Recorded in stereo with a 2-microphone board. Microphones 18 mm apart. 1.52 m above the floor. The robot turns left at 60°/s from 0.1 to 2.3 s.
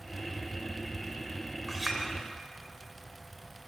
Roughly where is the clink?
Centre.